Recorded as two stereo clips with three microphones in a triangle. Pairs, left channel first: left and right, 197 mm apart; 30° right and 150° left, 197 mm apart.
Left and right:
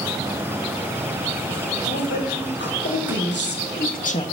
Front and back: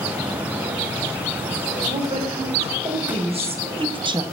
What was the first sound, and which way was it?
A woman speaking, 90° left.